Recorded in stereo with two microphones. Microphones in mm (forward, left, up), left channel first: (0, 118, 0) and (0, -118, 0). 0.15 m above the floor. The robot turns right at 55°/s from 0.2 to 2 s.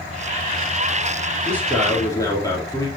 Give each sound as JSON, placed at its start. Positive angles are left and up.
{"t": 1.4, "sound": "a man speaking", "azimuth_deg": -15, "distance_m": 3.5}